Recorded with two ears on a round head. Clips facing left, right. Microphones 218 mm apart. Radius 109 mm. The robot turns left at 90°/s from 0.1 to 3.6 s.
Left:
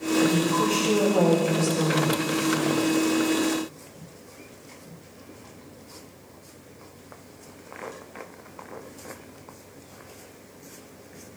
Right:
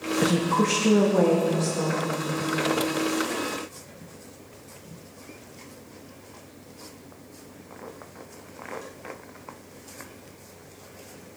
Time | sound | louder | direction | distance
0.2 | a woman speaking | right 2 dB | 55° right | 1.4 m